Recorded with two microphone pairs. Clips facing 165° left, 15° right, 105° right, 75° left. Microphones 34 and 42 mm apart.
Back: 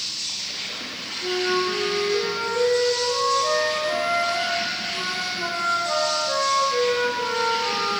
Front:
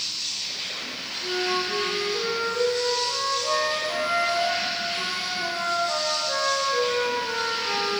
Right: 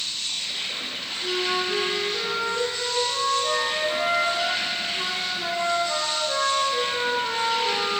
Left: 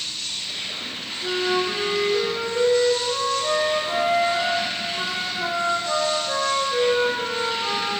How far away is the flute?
About 1.2 m.